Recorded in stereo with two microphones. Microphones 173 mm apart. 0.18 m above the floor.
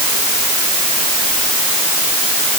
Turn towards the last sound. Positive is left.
No sound to turn to.